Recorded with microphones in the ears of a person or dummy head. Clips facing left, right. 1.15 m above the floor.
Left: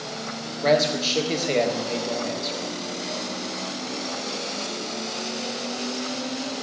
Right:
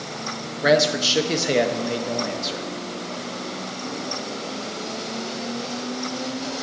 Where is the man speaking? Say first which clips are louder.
Right 2 dB; 10° right (ahead or behind), 0.9 m.